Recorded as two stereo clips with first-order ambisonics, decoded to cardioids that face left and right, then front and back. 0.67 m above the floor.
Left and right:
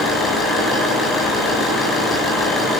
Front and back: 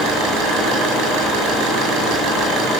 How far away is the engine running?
About 8 m.